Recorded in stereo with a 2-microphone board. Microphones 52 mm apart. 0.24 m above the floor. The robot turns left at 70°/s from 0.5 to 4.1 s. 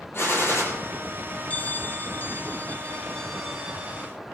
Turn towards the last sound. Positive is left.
turn(degrees=-50)